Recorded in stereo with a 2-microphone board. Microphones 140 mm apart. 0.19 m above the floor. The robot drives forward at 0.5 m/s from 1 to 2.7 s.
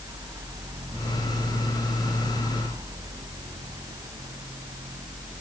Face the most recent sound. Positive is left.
No sound to turn to.